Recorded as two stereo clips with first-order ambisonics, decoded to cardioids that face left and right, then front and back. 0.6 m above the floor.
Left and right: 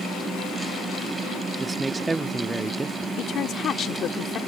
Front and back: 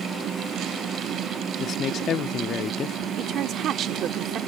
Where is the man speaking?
20° right.